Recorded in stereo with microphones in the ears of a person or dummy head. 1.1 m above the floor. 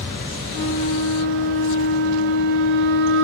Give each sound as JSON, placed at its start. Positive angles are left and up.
{"t": 0.5, "sound": "a flute", "side_deg": -65, "distance_m": 2.0}